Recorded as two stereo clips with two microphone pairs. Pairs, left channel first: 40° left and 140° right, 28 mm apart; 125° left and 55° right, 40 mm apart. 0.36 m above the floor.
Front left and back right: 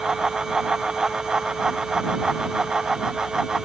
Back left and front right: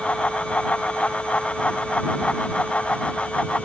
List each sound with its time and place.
Only background noise.